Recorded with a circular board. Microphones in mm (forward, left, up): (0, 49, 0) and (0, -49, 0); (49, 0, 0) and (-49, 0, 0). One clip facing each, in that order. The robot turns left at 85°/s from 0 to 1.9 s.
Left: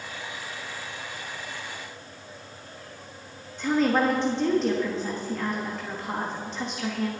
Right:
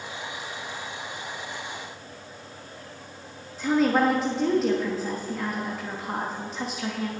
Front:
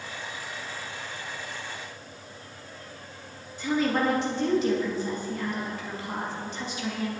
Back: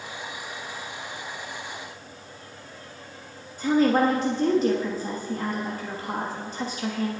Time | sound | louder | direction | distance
3.6 | a woman speaking | right 1 dB, back 5 dB | 175° right | 1.3 m